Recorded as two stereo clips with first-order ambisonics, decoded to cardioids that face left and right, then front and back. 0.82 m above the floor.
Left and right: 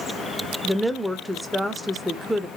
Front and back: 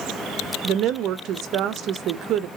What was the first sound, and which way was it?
A woman speaking, straight behind.